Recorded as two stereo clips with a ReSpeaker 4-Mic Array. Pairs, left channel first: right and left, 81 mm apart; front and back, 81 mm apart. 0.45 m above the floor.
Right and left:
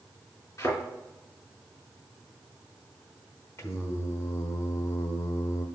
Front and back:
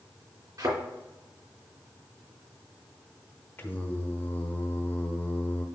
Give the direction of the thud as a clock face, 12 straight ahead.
5 o'clock.